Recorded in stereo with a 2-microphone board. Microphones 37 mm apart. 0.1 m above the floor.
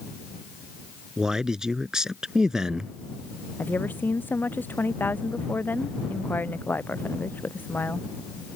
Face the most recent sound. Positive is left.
turn(degrees=60)  # may be behind; listen again after turning